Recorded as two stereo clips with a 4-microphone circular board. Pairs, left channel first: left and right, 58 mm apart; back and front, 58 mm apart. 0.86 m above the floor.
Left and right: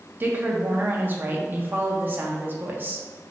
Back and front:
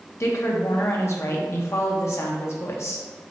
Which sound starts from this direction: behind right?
A woman speaking, at 0.2 s.